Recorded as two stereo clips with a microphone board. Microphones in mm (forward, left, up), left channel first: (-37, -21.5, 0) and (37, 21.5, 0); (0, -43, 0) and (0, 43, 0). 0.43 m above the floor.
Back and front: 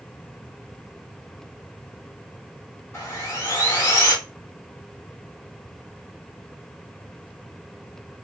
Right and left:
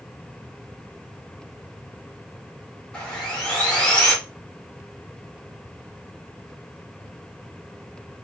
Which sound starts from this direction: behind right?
Sawing, at 2.9 s.